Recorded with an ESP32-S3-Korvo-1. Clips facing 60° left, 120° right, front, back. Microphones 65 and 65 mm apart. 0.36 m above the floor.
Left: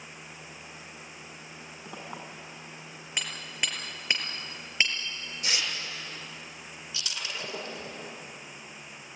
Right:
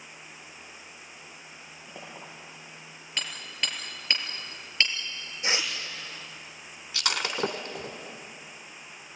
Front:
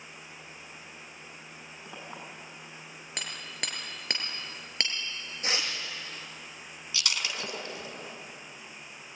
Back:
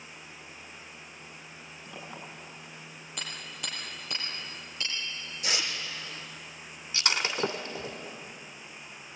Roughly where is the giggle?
No giggle in this recording.